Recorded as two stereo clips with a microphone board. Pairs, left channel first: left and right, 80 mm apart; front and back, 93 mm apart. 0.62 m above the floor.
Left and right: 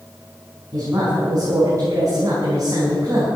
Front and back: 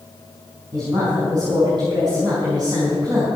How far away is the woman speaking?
About 5 m.